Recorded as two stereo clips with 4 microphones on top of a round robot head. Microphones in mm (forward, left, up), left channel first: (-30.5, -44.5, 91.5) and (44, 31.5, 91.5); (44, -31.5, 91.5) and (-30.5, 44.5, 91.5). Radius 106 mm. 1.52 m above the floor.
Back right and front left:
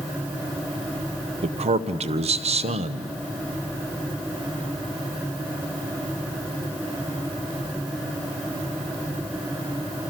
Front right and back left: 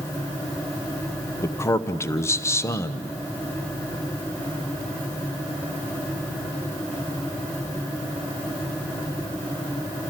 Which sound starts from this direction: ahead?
A man speaking, at 1.4 s.